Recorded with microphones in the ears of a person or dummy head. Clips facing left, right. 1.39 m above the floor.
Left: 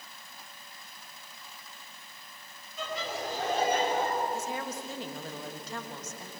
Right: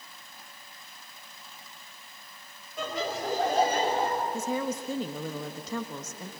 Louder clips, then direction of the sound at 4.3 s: Right 5 dB; 80° right.